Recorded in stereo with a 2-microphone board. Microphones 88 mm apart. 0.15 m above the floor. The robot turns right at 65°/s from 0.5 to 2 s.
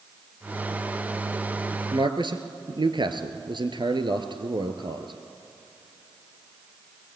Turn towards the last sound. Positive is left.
turn(degrees=-60)  # may be behind; listen again after turning